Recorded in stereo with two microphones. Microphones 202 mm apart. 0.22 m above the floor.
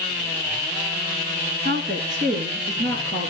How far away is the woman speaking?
About 1.9 m.